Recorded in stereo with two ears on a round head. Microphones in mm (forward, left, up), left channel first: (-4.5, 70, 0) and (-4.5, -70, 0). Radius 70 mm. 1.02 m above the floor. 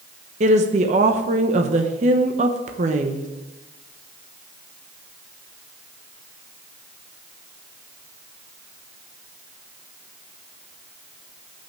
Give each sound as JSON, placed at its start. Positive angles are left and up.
{"t": 0.4, "sound": "a woman speaking", "side_deg": -45, "distance_m": 0.9}